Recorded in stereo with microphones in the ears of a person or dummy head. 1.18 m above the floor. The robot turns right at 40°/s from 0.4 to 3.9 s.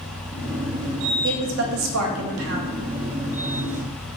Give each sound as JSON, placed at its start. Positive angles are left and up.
{"t": 1.2, "sound": "a woman speaking", "azimuth_deg": -125, "distance_m": 0.6}